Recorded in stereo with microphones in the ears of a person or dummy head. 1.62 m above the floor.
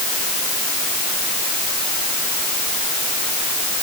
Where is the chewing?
No chewing in this recording.